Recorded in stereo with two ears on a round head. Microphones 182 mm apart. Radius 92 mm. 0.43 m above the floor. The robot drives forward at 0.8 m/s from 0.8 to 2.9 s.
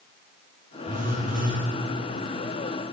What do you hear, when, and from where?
0.9 s a phone buzzing: 40° right (ahead or behind), 7 m; by 1.6 s 45° right (ahead or behind), 6.5 m